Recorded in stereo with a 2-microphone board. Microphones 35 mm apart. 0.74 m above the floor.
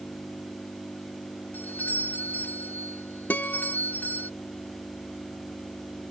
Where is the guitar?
65° left (ahead or behind).